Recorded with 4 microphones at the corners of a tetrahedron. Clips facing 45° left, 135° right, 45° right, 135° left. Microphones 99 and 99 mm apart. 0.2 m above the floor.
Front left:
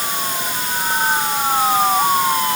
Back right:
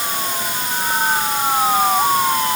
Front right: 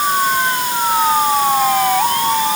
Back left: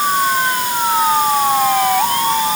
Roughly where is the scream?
I don't hear a scream.